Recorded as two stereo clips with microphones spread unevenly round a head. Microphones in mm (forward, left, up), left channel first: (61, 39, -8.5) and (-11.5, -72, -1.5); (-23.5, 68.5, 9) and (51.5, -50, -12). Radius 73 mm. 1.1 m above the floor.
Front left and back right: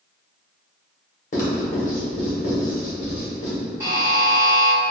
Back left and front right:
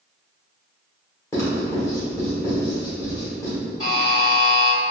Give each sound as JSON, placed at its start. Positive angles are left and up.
{"t": 1.3, "sound": "writing", "azimuth_deg": 50, "distance_m": 1.2}
{"t": 3.8, "sound": "a buzzer", "azimuth_deg": 175, "distance_m": 1.1}